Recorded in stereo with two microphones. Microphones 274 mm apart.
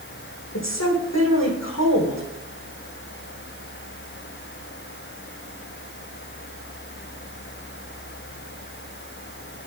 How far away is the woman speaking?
About 5.5 m.